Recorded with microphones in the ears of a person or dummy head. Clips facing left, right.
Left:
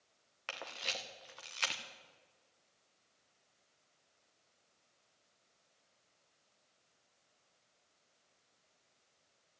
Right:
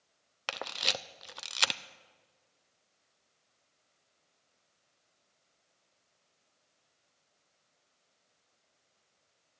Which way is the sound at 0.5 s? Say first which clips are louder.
Right 7 dB; 65° right (ahead or behind).